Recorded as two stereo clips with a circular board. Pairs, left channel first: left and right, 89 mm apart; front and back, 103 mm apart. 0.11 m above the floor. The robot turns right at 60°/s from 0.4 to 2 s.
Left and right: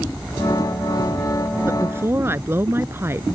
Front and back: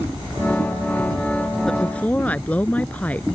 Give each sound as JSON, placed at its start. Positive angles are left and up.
{"t": 1.7, "sound": "a woman speaking", "azimuth_deg": -80}